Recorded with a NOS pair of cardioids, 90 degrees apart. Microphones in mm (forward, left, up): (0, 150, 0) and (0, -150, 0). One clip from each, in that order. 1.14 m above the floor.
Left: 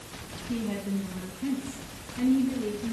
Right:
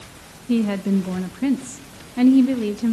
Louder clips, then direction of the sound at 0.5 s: Right 11 dB; 70° right.